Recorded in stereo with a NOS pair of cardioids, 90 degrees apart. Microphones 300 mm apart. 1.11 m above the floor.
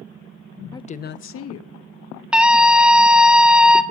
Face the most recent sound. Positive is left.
turn(degrees=-5)